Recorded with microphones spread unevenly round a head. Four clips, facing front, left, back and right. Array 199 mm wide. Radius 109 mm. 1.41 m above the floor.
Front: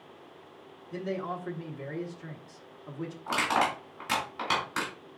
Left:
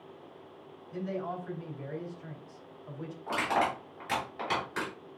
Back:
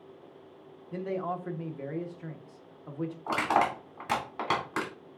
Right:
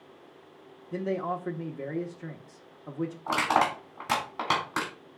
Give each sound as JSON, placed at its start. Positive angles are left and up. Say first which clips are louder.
{"t": 0.9, "sound": "a man speaking", "louder": "right 5 dB, back 1 dB", "azimuth_deg": -100, "distance_m": 1.2}
{"t": 3.3, "sound": "crushing", "louder": "right 4 dB, back 1 dB", "azimuth_deg": -125, "distance_m": 4.0}